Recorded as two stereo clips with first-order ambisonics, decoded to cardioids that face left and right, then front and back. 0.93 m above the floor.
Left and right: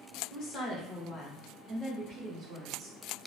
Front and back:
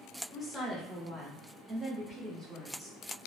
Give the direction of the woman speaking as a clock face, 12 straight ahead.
9 o'clock.